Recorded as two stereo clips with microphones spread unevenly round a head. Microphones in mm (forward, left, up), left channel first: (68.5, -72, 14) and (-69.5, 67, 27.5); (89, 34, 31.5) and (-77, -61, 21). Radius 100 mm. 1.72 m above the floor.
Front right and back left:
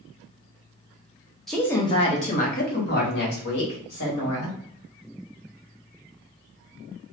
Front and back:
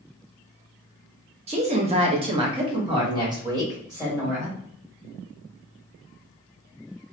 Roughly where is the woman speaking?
Behind right.